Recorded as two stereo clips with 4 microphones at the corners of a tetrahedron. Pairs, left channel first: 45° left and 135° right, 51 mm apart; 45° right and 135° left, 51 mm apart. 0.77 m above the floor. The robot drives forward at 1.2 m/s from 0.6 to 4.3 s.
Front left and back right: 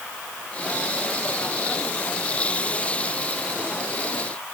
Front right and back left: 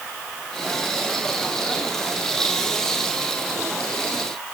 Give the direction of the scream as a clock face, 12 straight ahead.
I don't hear a scream.